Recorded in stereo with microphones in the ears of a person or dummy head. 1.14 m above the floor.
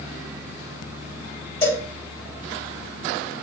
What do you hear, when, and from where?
1.6 s a cowbell: 10° left (ahead or behind), 3.5 m